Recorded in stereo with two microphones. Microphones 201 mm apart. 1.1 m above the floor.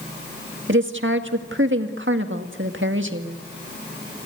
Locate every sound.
0.7 s a woman speaking: 75° right (ahead or behind), 1.7 m